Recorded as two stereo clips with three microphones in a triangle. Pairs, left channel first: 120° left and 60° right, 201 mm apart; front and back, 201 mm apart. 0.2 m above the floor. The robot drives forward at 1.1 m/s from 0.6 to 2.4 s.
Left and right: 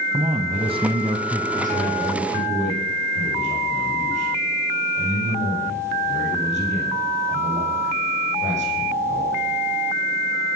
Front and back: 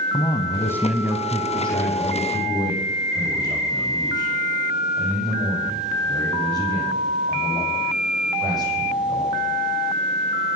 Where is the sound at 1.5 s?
105° right, 8.5 m; by 9.4 s 110° right, 9 m.